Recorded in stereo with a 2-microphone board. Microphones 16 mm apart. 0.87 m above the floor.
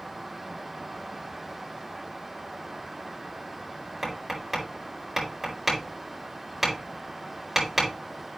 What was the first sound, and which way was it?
Tapping, 20° right (ahead or behind).